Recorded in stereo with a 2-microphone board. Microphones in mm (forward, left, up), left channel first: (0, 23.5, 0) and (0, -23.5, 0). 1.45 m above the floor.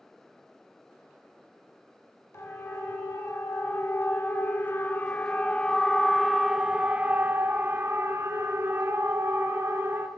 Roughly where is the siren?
Left.